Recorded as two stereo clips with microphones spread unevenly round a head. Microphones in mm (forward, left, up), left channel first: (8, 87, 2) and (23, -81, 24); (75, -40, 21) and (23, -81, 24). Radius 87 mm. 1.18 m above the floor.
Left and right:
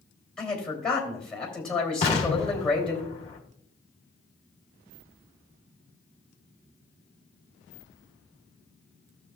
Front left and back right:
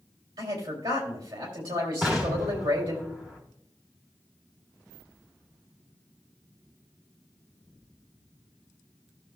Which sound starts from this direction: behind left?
An explosion, at 2.0 s.